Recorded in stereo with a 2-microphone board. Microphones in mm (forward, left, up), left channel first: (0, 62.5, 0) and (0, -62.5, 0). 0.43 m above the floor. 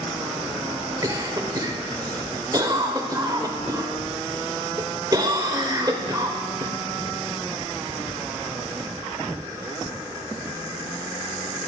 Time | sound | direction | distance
1.0 | a cough | 30° right (ahead or behind) | 1.1 m